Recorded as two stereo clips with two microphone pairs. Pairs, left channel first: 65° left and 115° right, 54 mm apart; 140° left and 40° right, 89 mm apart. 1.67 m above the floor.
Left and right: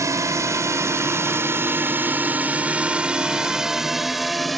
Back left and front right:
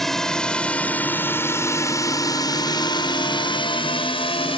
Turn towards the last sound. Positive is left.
turn(degrees=150)